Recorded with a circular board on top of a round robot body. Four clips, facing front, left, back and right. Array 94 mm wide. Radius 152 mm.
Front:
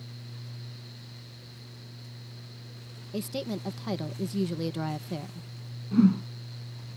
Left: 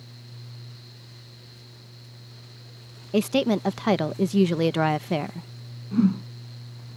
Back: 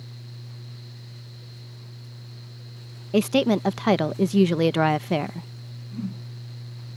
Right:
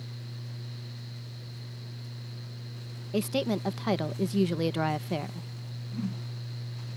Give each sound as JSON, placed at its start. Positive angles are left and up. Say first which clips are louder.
{"t": 3.1, "sound": "a woman speaking", "louder": "left 7 dB, back 13 dB", "azimuth_deg": 155}
{"t": 5.9, "sound": "a whoosh", "louder": "left 14 dB, front 12 dB", "azimuth_deg": 40}